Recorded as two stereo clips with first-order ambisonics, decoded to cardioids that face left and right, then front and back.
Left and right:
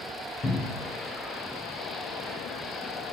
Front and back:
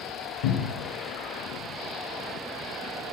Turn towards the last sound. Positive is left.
turn(degrees=15)